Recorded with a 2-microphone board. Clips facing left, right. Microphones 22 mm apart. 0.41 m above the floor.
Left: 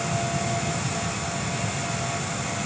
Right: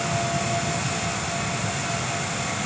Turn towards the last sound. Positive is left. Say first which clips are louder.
# right 2 dB
turn(degrees=-20)  # may be behind; listen again after turning